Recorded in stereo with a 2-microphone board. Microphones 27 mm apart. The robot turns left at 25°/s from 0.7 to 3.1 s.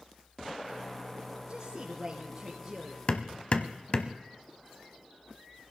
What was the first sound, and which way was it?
A woman speaking, 135° right.